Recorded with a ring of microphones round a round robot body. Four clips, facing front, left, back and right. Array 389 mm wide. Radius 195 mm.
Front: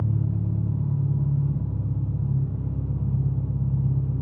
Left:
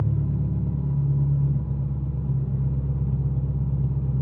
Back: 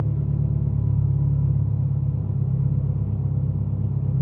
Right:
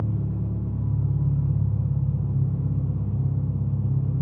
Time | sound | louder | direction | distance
0.0 | an engine running | left 2 dB, back 2 dB | 125° left | 2 m